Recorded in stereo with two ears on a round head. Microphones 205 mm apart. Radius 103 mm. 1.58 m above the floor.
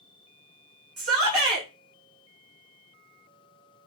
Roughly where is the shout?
Right.